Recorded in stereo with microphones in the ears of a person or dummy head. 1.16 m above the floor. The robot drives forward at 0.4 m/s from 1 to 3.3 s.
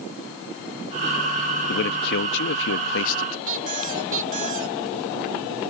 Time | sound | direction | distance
1.7 | a man speaking | 60° left (ahead or behind) | ?
3.5 | a squeak | 45° right (ahead or behind) | ?